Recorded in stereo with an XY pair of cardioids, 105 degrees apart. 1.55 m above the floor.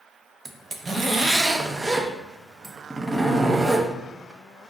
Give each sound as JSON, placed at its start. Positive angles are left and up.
{"t": 0.5, "sound": "a zipper", "azimuth_deg": -20, "distance_m": 0.6}